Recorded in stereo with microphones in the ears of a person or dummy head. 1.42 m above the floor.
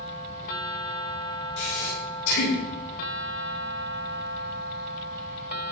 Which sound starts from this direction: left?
Breathing, at 1.6 s.